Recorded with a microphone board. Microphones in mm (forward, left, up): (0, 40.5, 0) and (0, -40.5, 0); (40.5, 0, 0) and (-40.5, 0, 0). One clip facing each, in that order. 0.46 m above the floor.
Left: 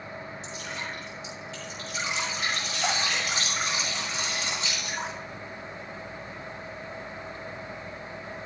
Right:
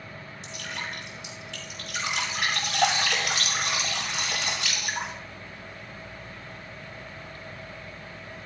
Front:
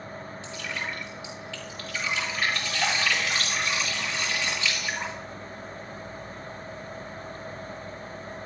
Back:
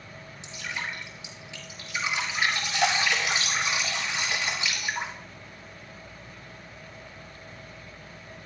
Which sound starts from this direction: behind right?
Dripping, at 0.4 s.